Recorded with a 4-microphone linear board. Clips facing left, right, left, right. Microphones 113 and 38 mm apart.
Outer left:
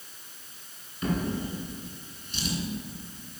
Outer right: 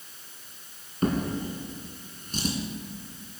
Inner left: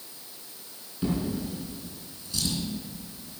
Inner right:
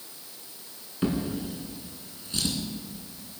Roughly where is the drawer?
Right.